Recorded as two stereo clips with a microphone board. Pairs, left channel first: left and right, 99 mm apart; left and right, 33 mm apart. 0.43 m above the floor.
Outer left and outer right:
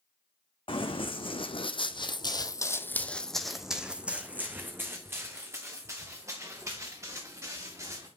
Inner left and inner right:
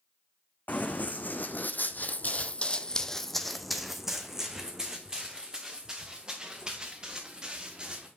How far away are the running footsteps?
About 1.3 m.